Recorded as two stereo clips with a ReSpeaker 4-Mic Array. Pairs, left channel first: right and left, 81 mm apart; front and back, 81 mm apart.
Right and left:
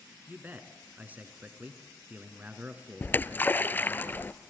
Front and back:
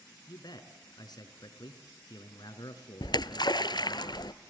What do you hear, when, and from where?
0.3 s a man speaking: 25° left, 2.5 m
3.0 s a splash: 25° right, 0.8 m